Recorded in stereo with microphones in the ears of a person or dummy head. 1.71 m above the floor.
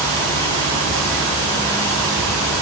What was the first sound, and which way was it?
Only background noise.